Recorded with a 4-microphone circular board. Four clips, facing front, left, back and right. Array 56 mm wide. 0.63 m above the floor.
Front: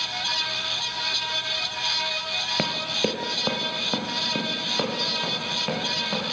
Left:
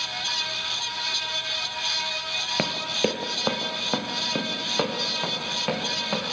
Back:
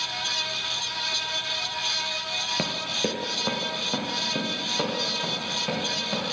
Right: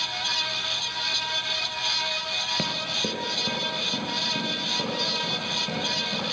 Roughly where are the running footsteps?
Ahead left.